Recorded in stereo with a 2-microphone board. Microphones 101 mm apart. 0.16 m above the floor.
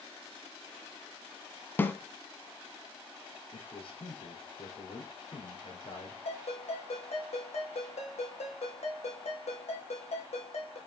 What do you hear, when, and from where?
1.8 s a snare drum: 20° left (ahead or behind), 1.1 m
3.5 s a man speaking: 60° left (ahead or behind), 3.5 m
6.2 s a ringtone: 80° left, 3.5 m